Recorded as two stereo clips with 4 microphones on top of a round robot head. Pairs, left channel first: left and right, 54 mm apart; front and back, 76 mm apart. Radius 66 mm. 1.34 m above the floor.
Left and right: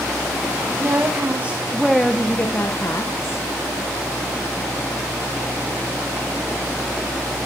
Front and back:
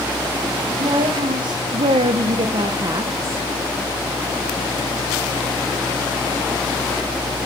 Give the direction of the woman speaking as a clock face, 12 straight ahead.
5 o'clock.